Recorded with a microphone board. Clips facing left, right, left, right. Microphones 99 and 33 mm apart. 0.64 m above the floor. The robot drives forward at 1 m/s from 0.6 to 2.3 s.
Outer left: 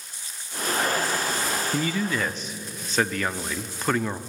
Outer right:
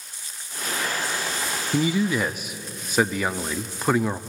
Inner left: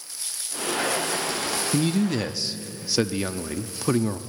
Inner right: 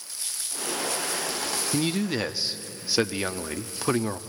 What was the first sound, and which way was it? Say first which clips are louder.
A man speaking: outer right 7 dB, inner left 3 dB; 15° right (ahead or behind).